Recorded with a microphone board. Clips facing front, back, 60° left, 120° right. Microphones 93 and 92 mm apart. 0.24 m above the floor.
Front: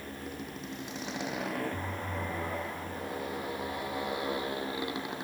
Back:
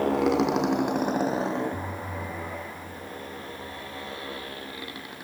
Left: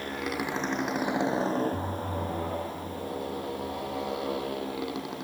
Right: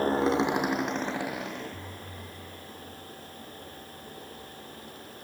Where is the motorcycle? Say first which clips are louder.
Back 19 dB, right 8 dB; 170° right; by 5.2 s 70° left.